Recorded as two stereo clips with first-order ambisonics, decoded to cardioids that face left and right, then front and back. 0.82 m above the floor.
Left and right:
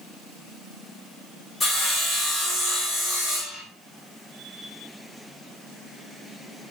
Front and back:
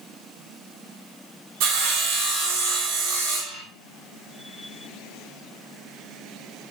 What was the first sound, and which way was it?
Sawing, 165° left.